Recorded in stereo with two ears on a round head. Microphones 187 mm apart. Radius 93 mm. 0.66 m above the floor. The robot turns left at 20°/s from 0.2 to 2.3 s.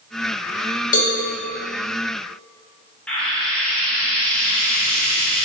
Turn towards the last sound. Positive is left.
turn(degrees=5)  # may be behind; listen again after turning